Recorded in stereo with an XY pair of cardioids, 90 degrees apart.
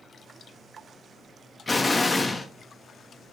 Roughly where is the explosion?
Ahead left.